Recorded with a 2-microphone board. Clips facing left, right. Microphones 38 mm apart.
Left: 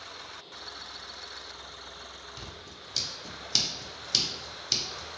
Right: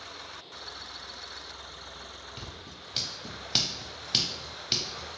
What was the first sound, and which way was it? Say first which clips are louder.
Scissors: right 1 dB; 25° right (ahead or behind).